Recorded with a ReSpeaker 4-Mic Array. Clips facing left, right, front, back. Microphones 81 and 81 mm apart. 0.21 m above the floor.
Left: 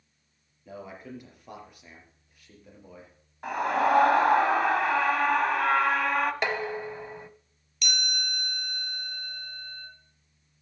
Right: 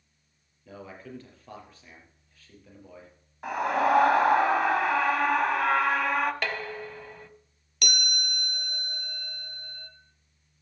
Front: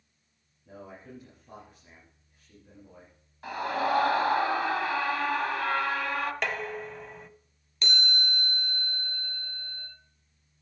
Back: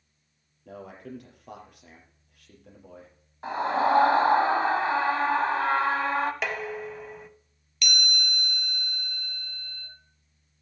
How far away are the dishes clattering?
About 0.7 m.